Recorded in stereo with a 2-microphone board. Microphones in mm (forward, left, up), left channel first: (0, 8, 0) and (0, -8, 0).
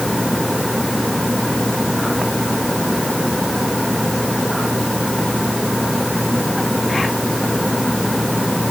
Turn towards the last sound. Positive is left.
No sound to turn to.